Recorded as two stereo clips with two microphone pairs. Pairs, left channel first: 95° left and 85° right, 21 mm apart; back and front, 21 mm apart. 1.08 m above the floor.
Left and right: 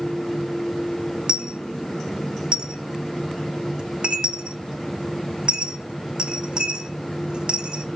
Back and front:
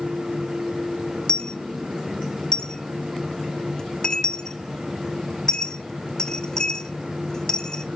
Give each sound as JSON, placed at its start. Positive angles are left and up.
{"t": 1.3, "sound": "a dropped coin", "azimuth_deg": -125, "distance_m": 1.0}